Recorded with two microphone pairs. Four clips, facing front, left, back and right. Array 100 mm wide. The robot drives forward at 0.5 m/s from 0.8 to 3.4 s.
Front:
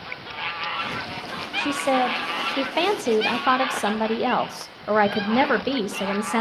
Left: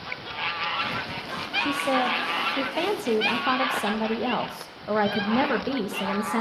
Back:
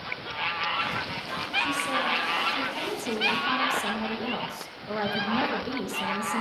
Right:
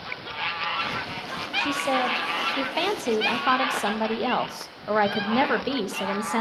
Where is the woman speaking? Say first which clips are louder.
Even, front 8 dB; 15° right, 1.8 m; by 6.4 s 30° right, 0.9 m.